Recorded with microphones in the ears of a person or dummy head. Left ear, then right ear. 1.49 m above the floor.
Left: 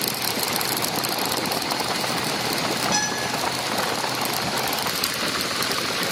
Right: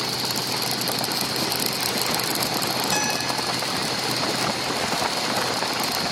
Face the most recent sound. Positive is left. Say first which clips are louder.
# even
turn(degrees=-25)  # may be behind; listen again after turning